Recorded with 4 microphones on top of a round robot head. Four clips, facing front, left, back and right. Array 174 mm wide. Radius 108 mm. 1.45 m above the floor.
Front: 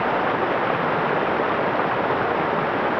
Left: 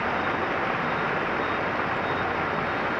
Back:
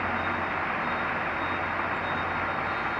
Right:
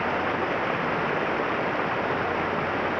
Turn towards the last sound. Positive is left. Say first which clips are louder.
# even, front 8 dB
turn(degrees=-10)